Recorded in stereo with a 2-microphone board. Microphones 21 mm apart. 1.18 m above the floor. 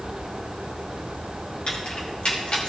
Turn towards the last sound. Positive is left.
turn(degrees=60)  # may be behind; listen again after turning